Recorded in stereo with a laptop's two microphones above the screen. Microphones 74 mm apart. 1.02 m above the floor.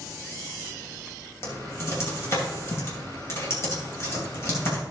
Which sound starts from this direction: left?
Typing on a keyboard, at 1.4 s.